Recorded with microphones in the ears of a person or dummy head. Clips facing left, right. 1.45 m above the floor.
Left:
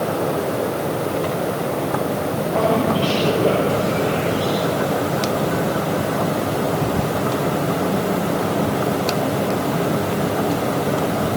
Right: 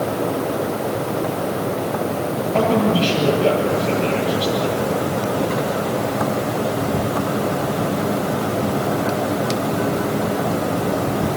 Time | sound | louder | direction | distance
2.5 | a man speaking | right 2 dB | 40° right (ahead or behind) | 7 m